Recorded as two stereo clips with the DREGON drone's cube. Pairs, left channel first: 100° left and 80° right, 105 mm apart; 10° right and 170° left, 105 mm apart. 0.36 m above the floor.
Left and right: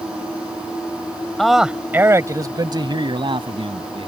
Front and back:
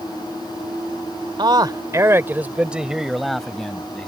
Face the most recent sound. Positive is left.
turn(degrees=-90)